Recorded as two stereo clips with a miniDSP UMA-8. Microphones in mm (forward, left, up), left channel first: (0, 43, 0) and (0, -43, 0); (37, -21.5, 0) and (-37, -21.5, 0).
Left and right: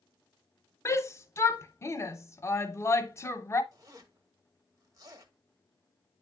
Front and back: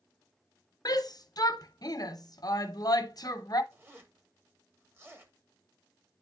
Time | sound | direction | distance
0.8 | a shout | 30° left | 0.6 m
3.7 | a zipper | 130° right | 1.1 m